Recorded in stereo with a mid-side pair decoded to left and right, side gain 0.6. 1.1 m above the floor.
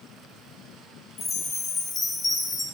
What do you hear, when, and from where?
1.2 s a chime: 30° left, 0.6 m